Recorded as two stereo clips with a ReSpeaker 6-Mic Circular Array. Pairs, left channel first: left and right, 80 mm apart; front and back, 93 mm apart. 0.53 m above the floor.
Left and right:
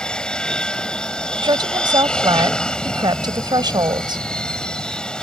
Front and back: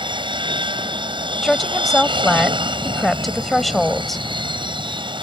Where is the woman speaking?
90° right.